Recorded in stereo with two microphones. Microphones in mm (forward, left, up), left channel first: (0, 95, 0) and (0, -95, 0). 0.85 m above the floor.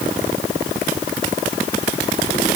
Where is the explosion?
No explosion in this recording.